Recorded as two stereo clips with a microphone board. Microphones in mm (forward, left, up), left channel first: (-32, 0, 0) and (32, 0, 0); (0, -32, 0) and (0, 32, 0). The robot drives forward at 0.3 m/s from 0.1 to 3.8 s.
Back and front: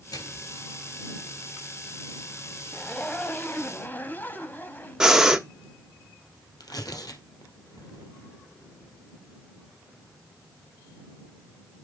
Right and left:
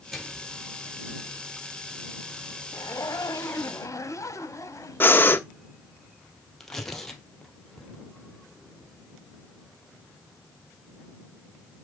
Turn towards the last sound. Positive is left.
turn(degrees=-175)